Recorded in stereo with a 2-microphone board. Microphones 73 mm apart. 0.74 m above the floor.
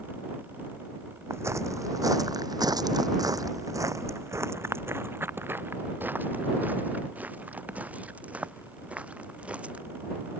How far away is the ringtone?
No ringtone in this recording.